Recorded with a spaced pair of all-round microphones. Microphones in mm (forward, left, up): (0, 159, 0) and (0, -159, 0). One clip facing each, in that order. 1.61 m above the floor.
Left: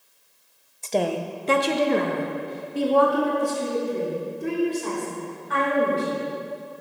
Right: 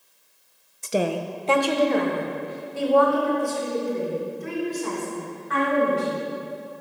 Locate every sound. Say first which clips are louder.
0.8 s a woman speaking: even; 20° right (ahead or behind), 0.6 m; by 6.2 s 50° left (ahead or behind), 5.5 m